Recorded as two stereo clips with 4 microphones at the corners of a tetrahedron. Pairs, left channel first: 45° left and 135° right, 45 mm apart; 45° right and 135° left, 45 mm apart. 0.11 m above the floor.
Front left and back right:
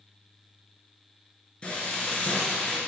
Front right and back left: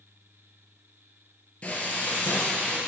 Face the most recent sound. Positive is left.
turn(degrees=-5)